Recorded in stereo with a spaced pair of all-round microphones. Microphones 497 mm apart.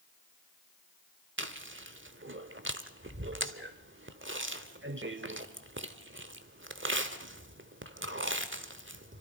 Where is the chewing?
25° right (ahead or behind), 1.0 m.